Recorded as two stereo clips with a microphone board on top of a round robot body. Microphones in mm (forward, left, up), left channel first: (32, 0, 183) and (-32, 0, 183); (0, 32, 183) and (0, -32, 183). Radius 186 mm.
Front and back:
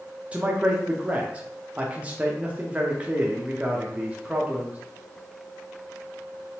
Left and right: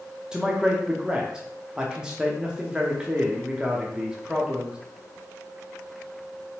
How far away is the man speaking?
About 0.9 m.